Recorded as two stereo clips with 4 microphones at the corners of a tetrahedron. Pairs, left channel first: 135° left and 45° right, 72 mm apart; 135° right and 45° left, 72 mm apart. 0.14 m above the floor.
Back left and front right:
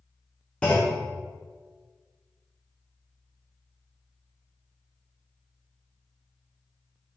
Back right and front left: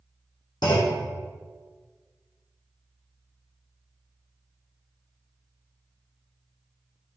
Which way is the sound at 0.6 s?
150° right.